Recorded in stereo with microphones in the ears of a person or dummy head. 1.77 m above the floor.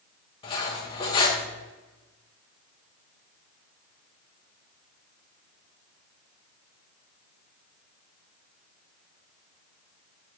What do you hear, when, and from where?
0.4 s cutlery clinking: 25° left (ahead or behind), 1.1 m